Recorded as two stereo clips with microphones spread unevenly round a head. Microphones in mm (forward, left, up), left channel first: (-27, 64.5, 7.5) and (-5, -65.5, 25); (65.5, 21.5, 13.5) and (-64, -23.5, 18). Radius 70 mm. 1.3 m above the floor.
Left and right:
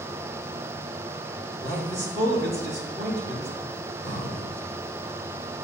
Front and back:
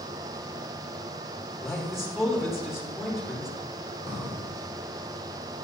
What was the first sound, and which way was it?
A man speaking, 75° right.